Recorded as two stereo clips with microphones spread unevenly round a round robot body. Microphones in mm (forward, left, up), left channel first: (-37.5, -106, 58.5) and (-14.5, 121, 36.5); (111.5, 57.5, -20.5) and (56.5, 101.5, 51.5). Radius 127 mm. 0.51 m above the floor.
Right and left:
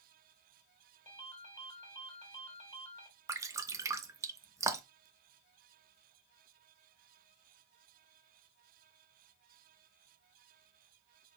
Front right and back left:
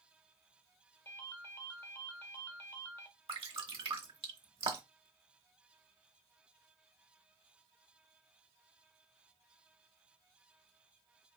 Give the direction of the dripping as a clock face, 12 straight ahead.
7 o'clock.